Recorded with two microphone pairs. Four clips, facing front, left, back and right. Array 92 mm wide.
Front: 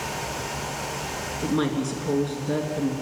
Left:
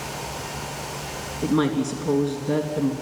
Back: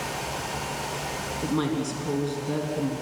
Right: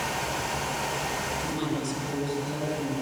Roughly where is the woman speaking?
Left.